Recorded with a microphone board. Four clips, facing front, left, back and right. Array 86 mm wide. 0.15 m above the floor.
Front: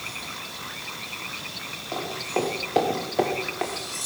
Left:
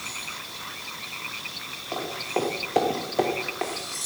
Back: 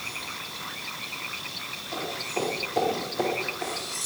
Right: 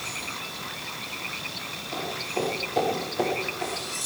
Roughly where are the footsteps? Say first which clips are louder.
Left 2 dB, front 4 dB; ahead left.